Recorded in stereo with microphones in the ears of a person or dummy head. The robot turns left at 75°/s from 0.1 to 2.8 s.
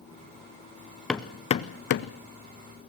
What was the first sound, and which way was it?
Hammering, centre (ahead or behind).